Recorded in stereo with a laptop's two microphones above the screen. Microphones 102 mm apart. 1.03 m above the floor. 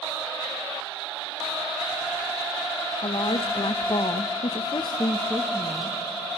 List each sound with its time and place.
3.0 s a woman speaking: 50° left (ahead or behind), 1.4 m; by 6.0 s 5° left (ahead or behind), 1.2 m